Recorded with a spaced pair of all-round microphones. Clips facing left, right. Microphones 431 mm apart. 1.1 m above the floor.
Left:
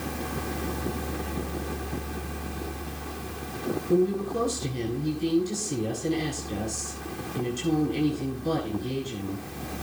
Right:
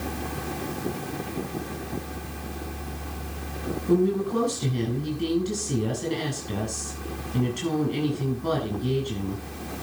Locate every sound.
3.9 s a woman speaking: 85° right, 8 m